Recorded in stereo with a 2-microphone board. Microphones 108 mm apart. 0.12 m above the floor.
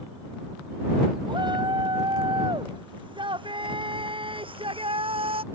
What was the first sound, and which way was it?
A shout, 45° right (ahead or behind).